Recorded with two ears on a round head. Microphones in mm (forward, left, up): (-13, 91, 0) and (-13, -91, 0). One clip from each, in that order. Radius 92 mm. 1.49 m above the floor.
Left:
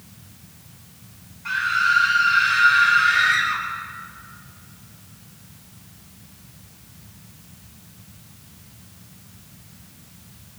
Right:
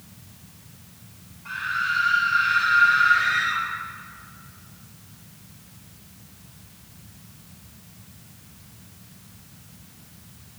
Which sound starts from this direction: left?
A scream, at 1.4 s.